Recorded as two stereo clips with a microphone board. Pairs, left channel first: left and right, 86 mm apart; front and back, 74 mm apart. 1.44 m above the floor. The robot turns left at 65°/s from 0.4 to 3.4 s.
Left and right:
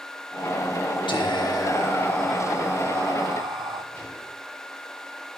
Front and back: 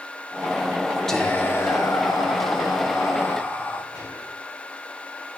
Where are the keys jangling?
No keys jangling in this recording.